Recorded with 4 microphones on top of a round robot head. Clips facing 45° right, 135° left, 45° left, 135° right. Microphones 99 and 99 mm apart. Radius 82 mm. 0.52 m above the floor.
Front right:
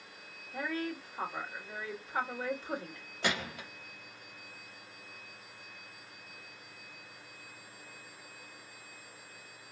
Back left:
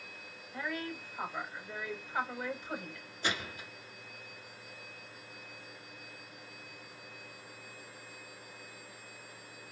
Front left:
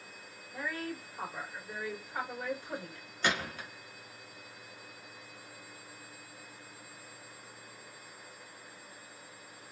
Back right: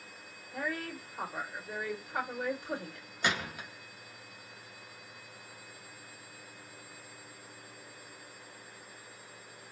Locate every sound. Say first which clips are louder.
0.5 s a woman speaking: front right 3 dB, back right 1 dB; 95° right, 1.9 m
3.2 s a gunshot: front right 2 dB, front left 1 dB; 60° right, 1.6 m